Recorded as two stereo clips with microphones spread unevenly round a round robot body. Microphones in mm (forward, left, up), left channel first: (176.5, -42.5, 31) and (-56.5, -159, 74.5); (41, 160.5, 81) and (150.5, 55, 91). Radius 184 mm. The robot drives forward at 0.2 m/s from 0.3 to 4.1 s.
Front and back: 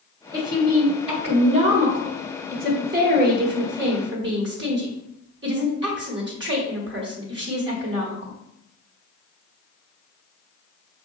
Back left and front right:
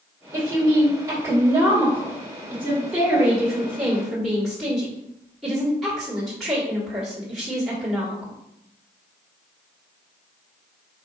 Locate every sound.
0.3 s a woman speaking: 75° right, 1.3 m; by 8.3 s 140° right, 1.5 m